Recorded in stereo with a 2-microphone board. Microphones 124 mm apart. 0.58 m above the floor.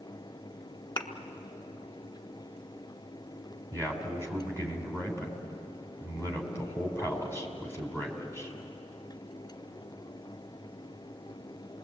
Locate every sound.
1.0 s a thud: 40° left (ahead or behind), 1.7 m
3.7 s a man speaking: 20° left (ahead or behind), 4 m